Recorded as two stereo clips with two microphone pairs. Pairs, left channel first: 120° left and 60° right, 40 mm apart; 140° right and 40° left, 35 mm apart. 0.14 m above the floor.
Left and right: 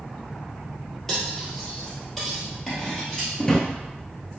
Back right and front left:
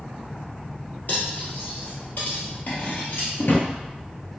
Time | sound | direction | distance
1.1 | cutlery clinking | 155° right | 1.7 m
3.4 | a drawer | 160° right | 0.7 m